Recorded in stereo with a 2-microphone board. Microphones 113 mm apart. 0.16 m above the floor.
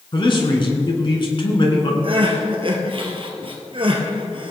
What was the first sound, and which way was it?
A man speaking, 45° left (ahead or behind).